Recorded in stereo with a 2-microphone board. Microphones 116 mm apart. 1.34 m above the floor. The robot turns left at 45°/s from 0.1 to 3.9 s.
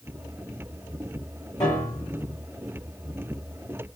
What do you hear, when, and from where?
1.6 s a piano: 30° left (ahead or behind), 3 m; by 2.4 s 5° right (ahead or behind), 3 m